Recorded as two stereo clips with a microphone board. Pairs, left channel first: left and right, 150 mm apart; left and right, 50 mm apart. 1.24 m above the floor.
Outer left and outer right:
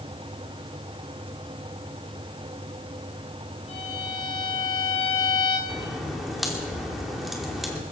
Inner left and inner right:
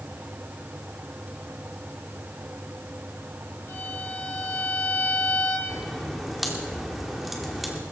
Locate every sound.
3.7 s a violin: 45° left (ahead or behind), 3.5 m
5.7 s a crack: centre (ahead or behind), 2.5 m